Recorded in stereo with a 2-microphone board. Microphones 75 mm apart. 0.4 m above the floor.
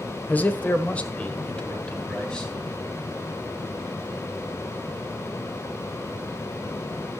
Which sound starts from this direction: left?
A man speaking, at 0.3 s.